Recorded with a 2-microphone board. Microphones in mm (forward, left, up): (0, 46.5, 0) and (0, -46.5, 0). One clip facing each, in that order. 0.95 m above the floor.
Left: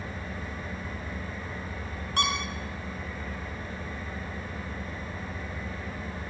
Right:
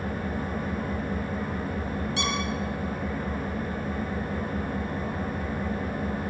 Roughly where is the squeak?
Left.